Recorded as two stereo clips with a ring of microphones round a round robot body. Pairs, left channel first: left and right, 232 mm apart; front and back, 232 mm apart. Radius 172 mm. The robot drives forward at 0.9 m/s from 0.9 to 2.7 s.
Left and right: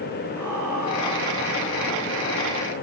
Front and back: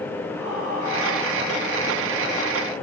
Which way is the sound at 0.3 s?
135° right.